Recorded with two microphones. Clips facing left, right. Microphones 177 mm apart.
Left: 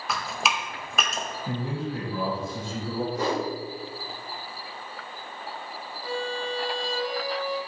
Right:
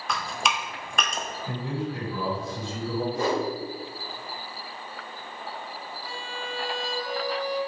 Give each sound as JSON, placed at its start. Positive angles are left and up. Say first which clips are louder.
{"t": 0.1, "sound": "dripping", "louder": "even", "side_deg": 5, "distance_m": 0.5}
{"t": 1.5, "sound": "a man speaking", "louder": "even", "side_deg": 30, "distance_m": 1.4}
{"t": 3.1, "sound": "a whoosh", "louder": "right 1 dB", "side_deg": -45, "distance_m": 1.6}
{"t": 6.0, "sound": "a violin", "louder": "left 10 dB", "side_deg": 25, "distance_m": 1.6}